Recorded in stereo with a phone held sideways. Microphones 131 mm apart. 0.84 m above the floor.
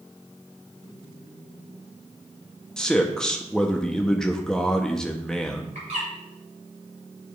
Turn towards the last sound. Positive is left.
turn(degrees=-80)